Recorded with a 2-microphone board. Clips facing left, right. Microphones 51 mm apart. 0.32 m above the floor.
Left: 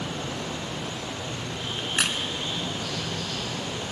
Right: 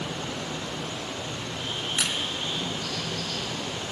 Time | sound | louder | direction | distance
0.0 | running water | left 1 dB | 10° left (ahead or behind) | 1.5 m
1.8 | a crack | left 3 dB | 50° left (ahead or behind) | 0.6 m